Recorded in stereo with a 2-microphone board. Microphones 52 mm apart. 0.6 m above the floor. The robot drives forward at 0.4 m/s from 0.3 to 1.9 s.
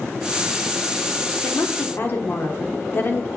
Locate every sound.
1.4 s a woman speaking: 50° left (ahead or behind), 1.3 m; by 3.3 s 45° left (ahead or behind), 1.3 m